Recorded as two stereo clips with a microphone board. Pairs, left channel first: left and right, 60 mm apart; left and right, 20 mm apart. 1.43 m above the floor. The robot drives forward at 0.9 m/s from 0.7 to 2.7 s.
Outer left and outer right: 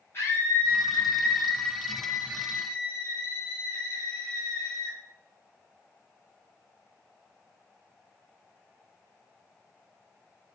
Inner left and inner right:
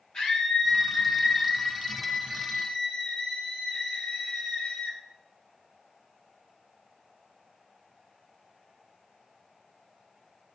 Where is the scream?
40° left (ahead or behind), 4.5 m; by 5.0 s 60° left (ahead or behind), 3.5 m.